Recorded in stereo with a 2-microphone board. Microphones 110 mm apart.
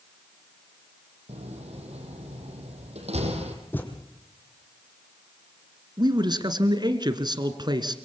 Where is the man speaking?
40° right (ahead or behind), 1.8 m.